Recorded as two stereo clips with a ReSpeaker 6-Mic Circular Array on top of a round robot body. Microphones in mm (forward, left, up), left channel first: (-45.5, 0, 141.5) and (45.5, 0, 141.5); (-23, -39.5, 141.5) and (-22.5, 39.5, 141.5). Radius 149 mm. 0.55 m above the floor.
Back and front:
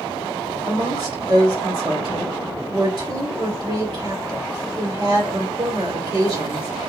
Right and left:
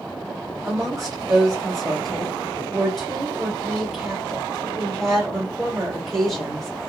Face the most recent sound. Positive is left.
turn(degrees=0)